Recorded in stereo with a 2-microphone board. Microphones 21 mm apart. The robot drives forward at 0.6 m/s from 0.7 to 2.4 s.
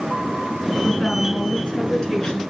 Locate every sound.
0.8 s a woman speaking: 45° left (ahead or behind), 3 m; by 2.4 s 40° left (ahead or behind), 3.5 m